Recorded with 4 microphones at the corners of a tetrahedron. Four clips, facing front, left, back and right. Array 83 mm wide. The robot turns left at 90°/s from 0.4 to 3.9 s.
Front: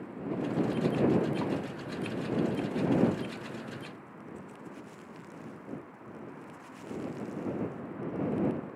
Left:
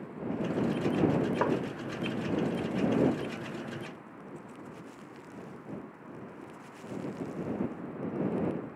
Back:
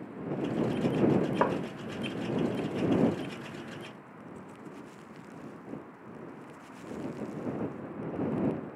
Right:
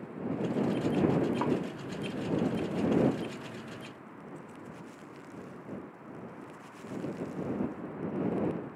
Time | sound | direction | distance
1.4 | tapping | 155° left | ?